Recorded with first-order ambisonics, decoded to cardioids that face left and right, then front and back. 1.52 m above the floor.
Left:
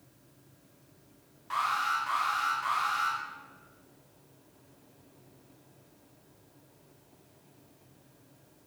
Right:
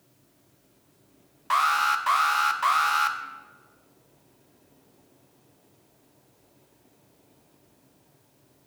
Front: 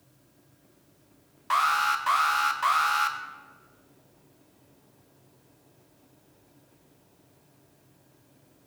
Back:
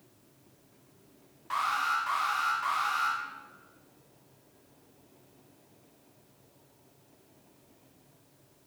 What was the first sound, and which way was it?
An alarm, 50° right.